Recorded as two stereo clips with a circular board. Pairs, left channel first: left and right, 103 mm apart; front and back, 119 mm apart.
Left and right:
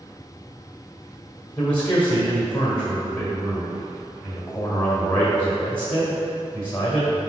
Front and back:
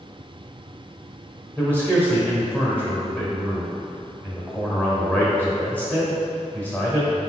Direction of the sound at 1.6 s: 55° left.